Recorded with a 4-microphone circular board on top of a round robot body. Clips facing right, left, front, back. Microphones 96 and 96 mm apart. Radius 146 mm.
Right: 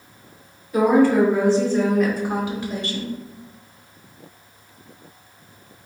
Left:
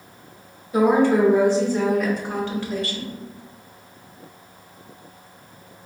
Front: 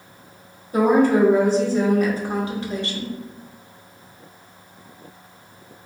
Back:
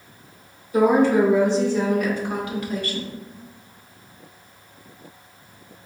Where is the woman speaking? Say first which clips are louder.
Right 1 dB, even; 30° left, 2.0 m; by 3.1 s 60° right, 1.4 m.